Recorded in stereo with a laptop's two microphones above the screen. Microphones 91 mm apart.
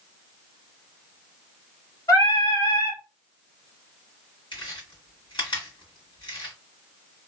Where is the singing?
35° left (ahead or behind), 1.7 m.